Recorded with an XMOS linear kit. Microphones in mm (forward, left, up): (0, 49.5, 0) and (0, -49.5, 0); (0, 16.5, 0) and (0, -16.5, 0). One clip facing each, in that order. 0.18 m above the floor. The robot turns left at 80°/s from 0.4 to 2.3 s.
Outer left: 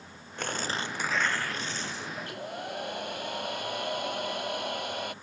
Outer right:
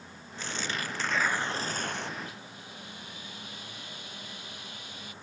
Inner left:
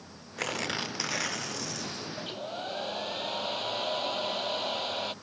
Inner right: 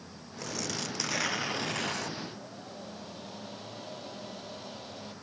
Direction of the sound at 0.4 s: 60° left.